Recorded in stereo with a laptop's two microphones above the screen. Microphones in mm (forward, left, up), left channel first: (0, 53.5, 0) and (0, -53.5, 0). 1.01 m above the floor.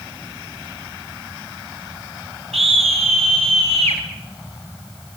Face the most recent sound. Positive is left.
turn(degrees=-80)